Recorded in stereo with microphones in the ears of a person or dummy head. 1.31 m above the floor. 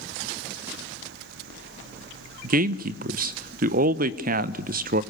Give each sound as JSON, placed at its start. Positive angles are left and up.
{"t": 2.4, "sound": "a man speaking", "side_deg": -45, "distance_m": 0.9}